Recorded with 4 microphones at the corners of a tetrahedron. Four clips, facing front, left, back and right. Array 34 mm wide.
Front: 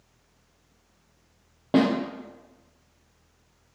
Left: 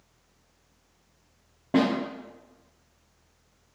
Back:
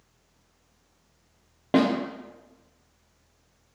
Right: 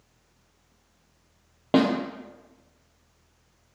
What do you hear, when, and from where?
1.7 s a snare drum: 105° right, 0.7 m